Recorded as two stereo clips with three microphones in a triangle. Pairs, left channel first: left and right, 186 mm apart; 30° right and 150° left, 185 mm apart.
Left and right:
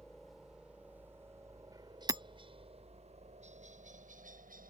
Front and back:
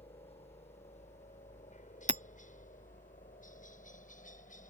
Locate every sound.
0.0 s a helicopter: 5° left; by 4.7 s 65° right
2.1 s hammering: 155° right